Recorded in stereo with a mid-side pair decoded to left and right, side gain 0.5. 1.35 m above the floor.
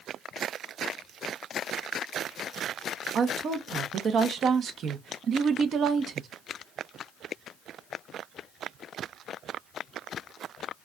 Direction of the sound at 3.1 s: 55° right.